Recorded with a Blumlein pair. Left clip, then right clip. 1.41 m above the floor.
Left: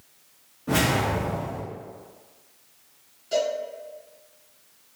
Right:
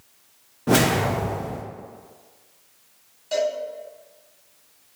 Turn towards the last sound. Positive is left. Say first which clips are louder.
# right 1 dB
turn(degrees=-70)